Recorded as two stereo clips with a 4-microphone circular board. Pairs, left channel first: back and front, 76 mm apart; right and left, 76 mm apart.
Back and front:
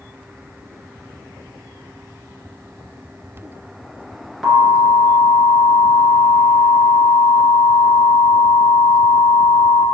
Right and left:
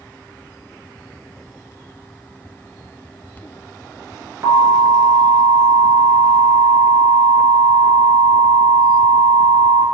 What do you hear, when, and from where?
4.4 s an alarm: 95° left, 1.6 m